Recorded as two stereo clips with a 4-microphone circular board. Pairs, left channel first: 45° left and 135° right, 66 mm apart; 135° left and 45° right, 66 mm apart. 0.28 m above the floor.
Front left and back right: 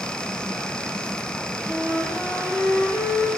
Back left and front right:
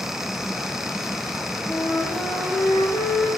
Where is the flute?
110° left, 8.5 m.